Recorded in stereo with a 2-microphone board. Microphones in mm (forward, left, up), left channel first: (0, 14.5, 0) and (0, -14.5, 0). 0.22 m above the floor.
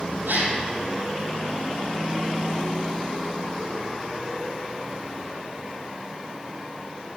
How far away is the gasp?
About 3 m.